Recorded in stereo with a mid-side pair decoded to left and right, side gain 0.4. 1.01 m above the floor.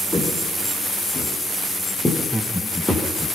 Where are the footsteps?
20° left, 8 m; by 3.1 s 15° left, 9 m.